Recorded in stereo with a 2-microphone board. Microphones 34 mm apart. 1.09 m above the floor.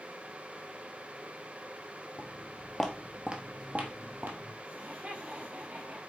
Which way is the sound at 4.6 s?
55° right (ahead or behind).